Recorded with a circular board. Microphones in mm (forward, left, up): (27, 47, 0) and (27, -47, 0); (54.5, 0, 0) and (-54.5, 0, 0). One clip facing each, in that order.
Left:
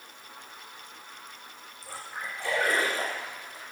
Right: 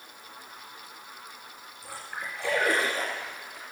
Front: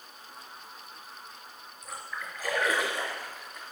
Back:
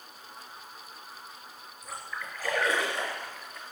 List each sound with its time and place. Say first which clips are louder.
1.8 s a splash: even, even; 80° right, 4 m